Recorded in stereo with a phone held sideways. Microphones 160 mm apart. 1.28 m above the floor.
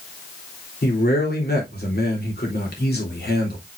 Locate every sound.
0.8 s a man speaking: 85° left, 3.5 m